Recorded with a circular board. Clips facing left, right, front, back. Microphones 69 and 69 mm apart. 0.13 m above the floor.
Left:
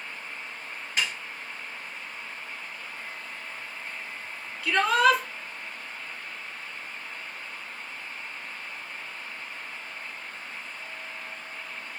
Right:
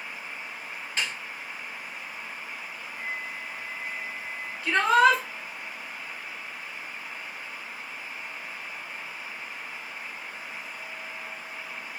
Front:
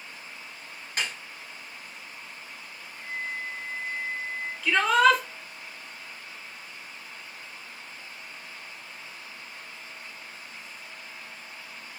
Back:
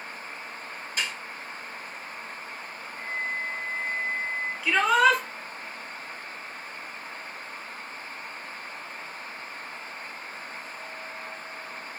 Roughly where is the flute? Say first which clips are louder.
Right 4 dB, back 3 dB; left.